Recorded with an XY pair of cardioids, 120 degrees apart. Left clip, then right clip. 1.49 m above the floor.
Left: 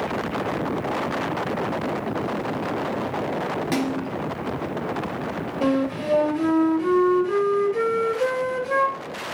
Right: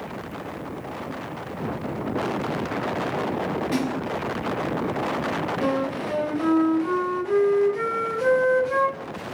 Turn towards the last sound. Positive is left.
turn(degrees=65)